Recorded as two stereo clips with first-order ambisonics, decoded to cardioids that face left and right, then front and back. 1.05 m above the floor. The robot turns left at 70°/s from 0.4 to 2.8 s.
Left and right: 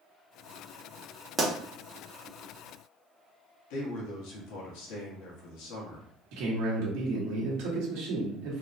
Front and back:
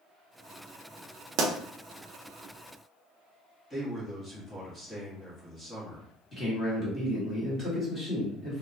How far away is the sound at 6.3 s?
About 1.3 m.